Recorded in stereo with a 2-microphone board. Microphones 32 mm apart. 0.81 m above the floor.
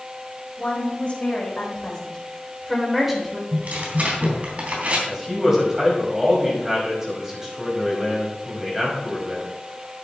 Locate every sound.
0.6 s a woman speaking: 40° left (ahead or behind), 5 m; by 3.4 s 15° right (ahead or behind), 3.5 m
3.5 s tearing paper: 50° right (ahead or behind), 3 m
5.1 s a man speaking: 15° right (ahead or behind), 5.5 m